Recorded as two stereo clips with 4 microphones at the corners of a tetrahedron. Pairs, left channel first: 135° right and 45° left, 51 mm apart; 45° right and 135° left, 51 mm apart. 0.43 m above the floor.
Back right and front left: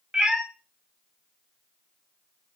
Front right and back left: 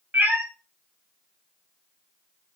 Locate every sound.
0.1 s a cat meowing: 110° left, 0.6 m